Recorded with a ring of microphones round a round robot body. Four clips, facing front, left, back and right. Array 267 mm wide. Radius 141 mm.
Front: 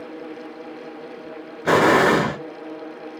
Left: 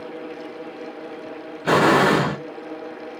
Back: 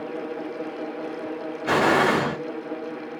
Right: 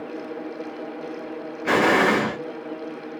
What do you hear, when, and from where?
1.6 s an explosion: 20° left, 0.8 m